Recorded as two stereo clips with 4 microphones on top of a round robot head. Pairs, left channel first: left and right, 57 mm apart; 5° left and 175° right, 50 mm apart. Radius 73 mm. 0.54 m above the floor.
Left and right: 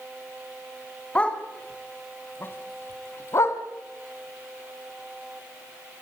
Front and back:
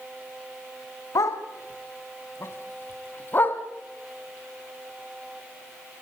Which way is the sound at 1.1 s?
20° left.